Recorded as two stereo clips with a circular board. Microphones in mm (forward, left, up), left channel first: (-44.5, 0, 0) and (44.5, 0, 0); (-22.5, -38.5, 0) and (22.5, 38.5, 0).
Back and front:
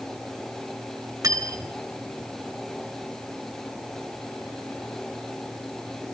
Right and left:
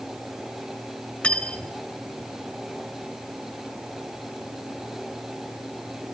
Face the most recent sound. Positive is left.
turn(degrees=-45)